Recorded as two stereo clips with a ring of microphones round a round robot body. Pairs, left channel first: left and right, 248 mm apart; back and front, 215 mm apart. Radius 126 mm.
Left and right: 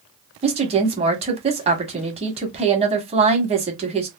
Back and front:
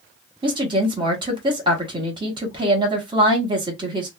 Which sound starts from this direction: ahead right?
A woman speaking, at 0.4 s.